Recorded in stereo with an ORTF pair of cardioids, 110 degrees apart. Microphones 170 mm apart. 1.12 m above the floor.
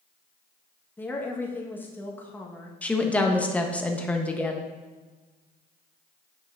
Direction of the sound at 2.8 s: 10° left.